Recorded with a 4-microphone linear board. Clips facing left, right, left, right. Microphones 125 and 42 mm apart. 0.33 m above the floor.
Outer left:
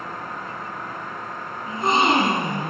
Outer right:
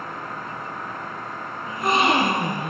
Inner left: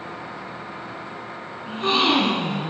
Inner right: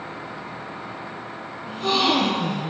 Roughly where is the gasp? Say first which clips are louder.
Outer left 1 dB, inner left 1 dB; left.